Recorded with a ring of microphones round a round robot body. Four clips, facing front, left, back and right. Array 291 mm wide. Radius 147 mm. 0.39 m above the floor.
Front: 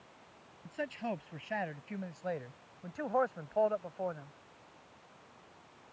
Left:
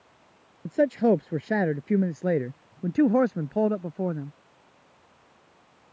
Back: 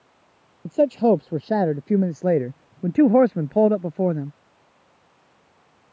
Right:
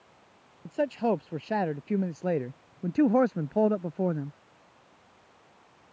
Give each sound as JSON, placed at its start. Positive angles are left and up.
{"t": 0.7, "sound": "a man speaking", "azimuth_deg": 150}